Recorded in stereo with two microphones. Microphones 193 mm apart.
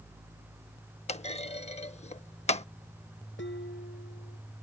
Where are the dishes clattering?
80° left.